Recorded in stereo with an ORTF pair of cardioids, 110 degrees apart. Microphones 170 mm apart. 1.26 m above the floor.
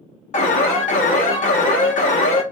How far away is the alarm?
About 1.3 m.